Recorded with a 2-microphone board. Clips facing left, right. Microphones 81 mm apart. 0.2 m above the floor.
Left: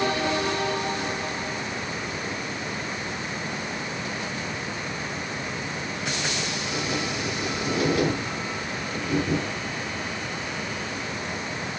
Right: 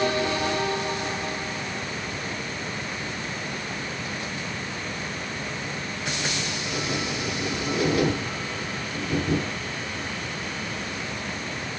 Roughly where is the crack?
No crack in this recording.